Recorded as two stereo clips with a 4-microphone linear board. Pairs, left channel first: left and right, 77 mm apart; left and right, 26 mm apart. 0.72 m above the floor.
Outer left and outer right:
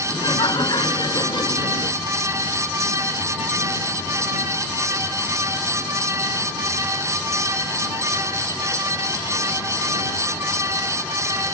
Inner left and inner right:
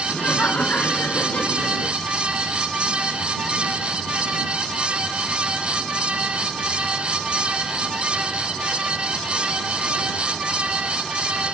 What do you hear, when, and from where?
0.1 s laughter: 80° left